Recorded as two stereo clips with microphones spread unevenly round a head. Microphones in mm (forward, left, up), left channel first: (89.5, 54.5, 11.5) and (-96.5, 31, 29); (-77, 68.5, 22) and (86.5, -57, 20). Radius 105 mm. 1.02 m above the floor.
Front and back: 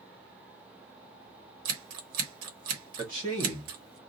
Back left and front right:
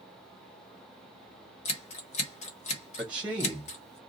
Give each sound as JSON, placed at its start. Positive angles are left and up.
{"t": 1.6, "sound": "scissors", "azimuth_deg": -155, "distance_m": 1.0}
{"t": 3.0, "sound": "a man speaking", "azimuth_deg": -120, "distance_m": 1.5}